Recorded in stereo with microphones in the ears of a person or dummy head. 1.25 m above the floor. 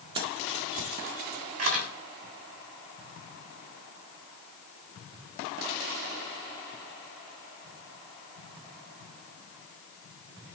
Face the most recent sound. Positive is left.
turn(degrees=-50)  # may be behind; listen again after turning